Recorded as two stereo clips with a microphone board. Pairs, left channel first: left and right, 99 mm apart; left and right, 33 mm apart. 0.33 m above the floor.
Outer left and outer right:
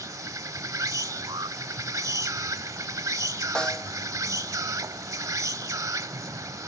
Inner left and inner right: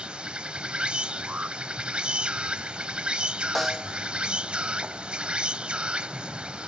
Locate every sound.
0.0 s an insect: 35° right (ahead or behind)
1.3 s an alarm: 45° right (ahead or behind)
3.5 s a snare drum: 5° left (ahead or behind)